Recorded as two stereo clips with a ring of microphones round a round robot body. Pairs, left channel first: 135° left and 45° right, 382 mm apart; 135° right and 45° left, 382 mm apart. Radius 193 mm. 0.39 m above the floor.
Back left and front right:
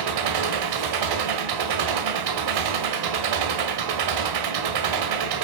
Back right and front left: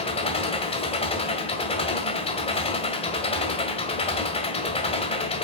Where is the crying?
No crying in this recording.